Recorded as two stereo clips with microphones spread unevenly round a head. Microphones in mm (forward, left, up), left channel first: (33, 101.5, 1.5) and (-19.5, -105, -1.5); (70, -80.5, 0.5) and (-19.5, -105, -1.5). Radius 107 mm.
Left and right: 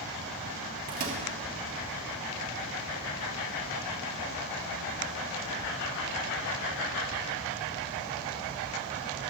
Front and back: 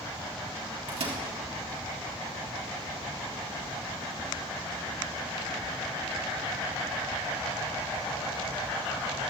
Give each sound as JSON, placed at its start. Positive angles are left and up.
{"t": 0.9, "sound": "a microwave", "azimuth_deg": -155, "distance_m": 1.9}